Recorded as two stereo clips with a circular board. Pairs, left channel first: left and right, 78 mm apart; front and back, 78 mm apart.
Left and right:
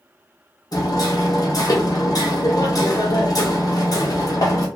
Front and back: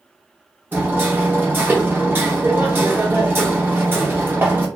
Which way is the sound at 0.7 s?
120° left.